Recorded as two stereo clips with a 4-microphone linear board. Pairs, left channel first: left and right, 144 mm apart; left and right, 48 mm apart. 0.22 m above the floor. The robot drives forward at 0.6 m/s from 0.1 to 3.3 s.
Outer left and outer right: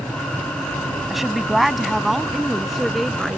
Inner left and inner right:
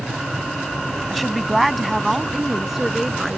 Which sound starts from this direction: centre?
A woman speaking, at 1.1 s.